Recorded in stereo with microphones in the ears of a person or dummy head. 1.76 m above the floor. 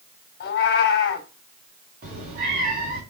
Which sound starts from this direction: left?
A cat meowing, at 0.4 s.